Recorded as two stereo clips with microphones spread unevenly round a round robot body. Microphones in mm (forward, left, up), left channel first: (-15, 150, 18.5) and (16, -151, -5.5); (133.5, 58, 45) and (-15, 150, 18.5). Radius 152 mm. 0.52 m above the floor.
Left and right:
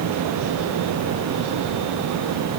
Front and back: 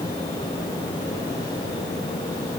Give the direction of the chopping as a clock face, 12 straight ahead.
I don't hear chopping.